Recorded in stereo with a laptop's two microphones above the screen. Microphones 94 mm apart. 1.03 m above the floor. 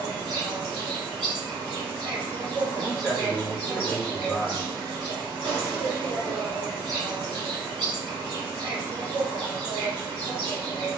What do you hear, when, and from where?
0.0 s an insect: 60° right (ahead or behind), 2.0 m
2.8 s a man speaking: 5° right (ahead or behind), 1.0 m